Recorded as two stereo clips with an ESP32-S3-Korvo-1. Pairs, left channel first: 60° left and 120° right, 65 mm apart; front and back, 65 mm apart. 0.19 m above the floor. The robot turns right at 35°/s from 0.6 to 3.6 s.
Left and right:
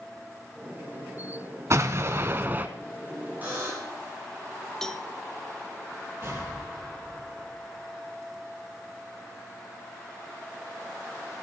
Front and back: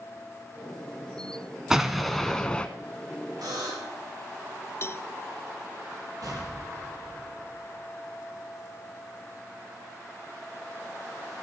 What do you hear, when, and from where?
1.7 s an explosion: 100° right, 1.0 m; by 2.7 s 65° right, 1.0 m
3.4 s a buzzer: straight behind, 8.5 m; by 4.0 s 175° right, 8.5 m
4.8 s a cowbell: 15° right, 0.5 m
6.2 s an explosion: 165° right, 6 m